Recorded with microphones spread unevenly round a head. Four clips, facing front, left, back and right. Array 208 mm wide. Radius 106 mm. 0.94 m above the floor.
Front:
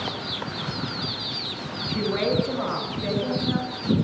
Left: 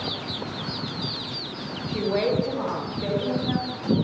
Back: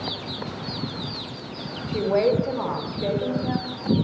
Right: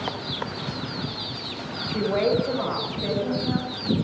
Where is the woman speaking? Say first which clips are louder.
Right 1 dB, back 4 dB; straight behind, 6.5 m; by 3.9 s 175° left, 8 m.